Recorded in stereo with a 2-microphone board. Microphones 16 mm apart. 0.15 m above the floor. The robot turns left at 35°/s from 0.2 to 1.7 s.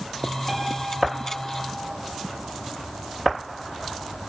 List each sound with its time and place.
0.5 s a piano: 30° right, 4 m; by 1.7 s 70° right, 4 m